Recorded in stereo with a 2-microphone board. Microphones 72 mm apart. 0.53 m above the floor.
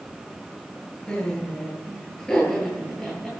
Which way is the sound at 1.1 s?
15° left (ahead or behind).